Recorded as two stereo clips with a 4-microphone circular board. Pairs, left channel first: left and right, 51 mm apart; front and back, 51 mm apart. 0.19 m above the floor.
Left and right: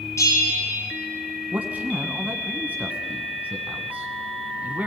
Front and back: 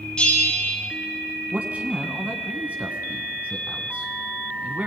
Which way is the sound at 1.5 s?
135° right.